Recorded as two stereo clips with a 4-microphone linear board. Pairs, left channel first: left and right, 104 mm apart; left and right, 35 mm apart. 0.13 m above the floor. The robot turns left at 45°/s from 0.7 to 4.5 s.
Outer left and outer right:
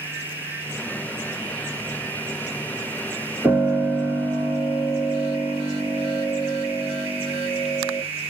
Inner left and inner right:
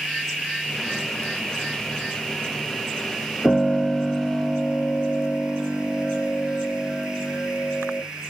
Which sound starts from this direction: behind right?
A piano, at 3.4 s.